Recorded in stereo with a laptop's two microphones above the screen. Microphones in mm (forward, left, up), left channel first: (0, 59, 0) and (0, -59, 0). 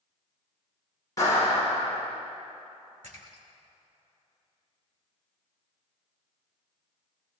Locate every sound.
1.2 s a clap: 30° left (ahead or behind), 5.5 m
3.0 s a splash: 80° right, 2 m